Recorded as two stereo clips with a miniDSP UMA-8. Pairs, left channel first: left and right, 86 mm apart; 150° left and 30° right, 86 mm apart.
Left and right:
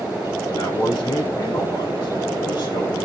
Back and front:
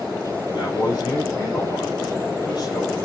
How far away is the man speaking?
About 7 m.